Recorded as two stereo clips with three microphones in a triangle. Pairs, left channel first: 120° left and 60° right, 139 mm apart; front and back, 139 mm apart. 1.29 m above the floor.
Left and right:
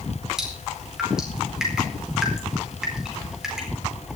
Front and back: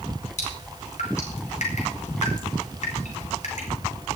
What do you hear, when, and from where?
0.4 s dripping: 25° left, 4.5 m